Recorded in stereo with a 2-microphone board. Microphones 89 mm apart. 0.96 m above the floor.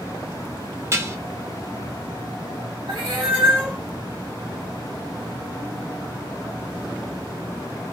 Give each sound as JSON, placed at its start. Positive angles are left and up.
{"t": 0.9, "sound": "dishes clattering", "side_deg": -30, "distance_m": 0.6}
{"t": 2.9, "sound": "a cat meowing", "side_deg": -75, "distance_m": 1.4}